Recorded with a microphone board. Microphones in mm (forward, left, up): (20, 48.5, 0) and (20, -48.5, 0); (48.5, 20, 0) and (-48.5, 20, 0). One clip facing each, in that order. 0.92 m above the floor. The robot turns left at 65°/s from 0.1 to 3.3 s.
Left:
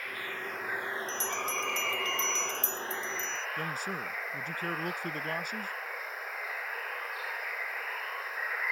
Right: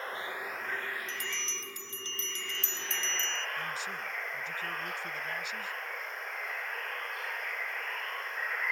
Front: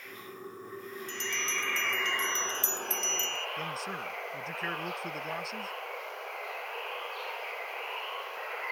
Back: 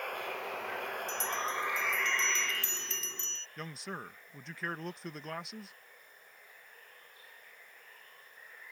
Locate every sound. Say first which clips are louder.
0.0 s running water: right 1 dB, back 6 dB; 150° right; by 8.7 s 5° left
1.1 s a bell: left 6 dB, back 1 dB; 35° left; by 3.5 s 110° right
3.6 s a man speaking: left 2 dB, front 6 dB; 90° left